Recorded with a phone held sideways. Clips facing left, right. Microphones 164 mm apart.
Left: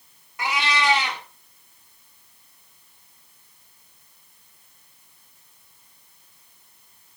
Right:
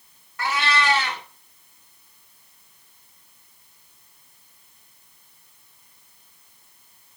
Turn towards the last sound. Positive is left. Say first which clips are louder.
# right 1 dB
turn(degrees=10)  # may be behind; listen again after turning